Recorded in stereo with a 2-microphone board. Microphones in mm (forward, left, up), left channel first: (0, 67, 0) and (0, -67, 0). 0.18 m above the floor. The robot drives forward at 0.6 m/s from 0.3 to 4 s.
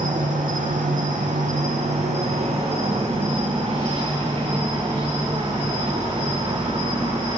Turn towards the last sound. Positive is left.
turn(degrees=-35)  # may be behind; listen again after turning